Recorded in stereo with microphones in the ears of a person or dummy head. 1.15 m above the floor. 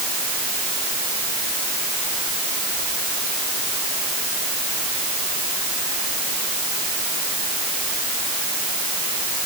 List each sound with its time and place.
Only background noise.